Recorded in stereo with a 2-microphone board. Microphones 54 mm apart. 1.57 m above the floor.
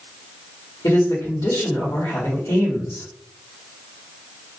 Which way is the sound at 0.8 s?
80° left.